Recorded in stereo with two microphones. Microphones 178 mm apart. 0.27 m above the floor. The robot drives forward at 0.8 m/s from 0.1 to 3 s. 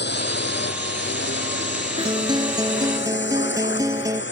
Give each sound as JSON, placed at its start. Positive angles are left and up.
{"t": 0.0, "sound": "a drone", "side_deg": 70}
{"t": 2.0, "sound": "a guitar", "side_deg": -30}